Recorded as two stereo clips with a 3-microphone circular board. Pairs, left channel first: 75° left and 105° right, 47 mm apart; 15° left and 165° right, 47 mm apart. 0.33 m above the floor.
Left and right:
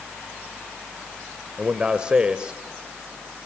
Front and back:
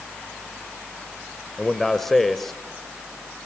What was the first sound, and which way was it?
A man speaking, 65° right.